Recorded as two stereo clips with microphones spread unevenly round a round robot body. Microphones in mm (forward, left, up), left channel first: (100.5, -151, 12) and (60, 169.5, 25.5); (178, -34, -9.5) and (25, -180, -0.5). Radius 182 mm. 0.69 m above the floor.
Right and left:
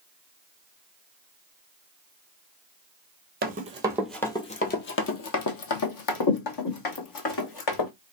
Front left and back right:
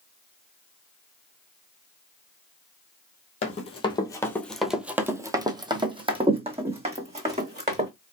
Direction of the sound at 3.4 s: 75° left.